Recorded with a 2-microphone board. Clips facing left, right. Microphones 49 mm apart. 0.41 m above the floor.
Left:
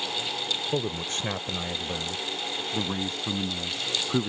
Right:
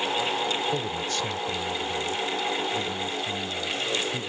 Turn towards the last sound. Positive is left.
turn(degrees=65)  # may be behind; listen again after turning